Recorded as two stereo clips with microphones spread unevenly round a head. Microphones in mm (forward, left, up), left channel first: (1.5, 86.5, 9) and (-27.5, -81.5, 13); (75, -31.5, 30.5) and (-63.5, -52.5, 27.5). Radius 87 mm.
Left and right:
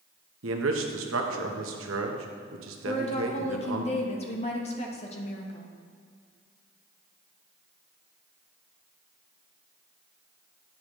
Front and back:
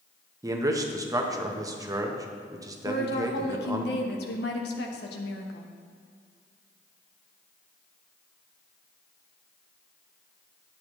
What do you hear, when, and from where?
0.4 s a man speaking: 105° right, 1.1 m
2.9 s a woman speaking: 25° left, 1.1 m